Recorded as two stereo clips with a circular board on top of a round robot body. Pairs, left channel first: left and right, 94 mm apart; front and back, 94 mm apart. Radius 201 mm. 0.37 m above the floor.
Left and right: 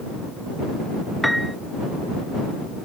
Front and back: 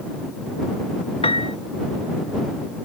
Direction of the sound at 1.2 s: Straight ahead.